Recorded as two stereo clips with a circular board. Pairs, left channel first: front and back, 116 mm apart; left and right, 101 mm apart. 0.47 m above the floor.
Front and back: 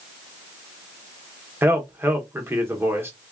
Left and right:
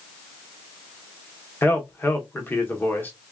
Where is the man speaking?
135° left, 0.7 m.